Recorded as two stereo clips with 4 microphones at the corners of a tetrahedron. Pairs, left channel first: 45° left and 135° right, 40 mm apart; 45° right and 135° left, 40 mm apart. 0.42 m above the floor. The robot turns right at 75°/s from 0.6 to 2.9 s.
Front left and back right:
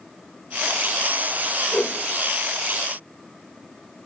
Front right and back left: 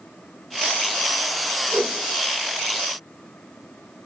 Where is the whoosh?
95° left, 0.7 m; by 2.0 s 115° left, 0.7 m.